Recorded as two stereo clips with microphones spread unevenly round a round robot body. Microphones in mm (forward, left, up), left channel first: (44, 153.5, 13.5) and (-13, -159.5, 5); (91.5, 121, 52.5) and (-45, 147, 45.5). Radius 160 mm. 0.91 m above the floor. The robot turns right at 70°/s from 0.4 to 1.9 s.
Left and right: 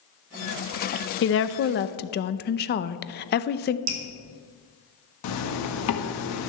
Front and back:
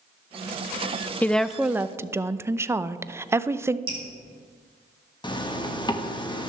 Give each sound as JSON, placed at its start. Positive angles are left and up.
{"t": 1.2, "sound": "a woman speaking", "azimuth_deg": 65, "distance_m": 0.6}
{"t": 3.9, "sound": "dripping", "azimuth_deg": -135, "distance_m": 1.6}
{"t": 5.2, "sound": "a zipper", "azimuth_deg": 45, "distance_m": 1.5}